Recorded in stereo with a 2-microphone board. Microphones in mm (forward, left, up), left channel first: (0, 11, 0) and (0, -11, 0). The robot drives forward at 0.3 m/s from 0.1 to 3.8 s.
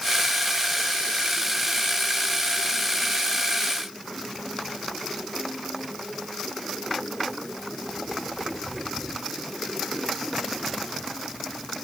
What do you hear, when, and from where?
Only background noise.